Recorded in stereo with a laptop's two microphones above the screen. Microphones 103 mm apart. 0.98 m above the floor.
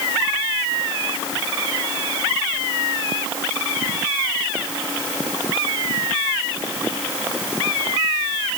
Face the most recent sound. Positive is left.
No sound to turn to.